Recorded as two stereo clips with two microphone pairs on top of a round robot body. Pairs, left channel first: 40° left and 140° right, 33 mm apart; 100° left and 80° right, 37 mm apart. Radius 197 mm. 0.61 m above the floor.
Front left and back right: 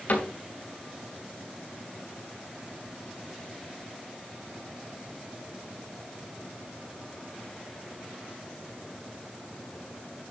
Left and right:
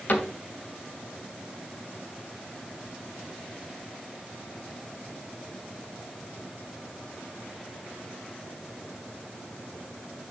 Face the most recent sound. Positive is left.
turn(degrees=65)